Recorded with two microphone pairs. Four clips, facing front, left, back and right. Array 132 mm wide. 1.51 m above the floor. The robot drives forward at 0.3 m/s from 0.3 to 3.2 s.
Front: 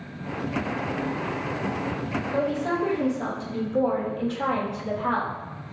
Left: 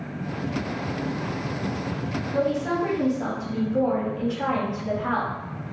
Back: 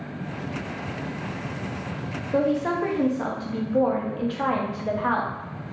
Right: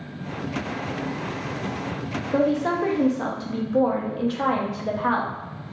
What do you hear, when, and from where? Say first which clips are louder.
2.3 s a woman speaking: right 3 dB, back 4 dB; 110° right, 0.7 m; by 5.3 s 130° right, 0.8 m